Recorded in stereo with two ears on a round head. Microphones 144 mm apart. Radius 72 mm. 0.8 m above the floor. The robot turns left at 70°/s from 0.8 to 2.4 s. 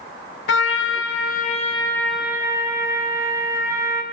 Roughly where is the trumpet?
Left.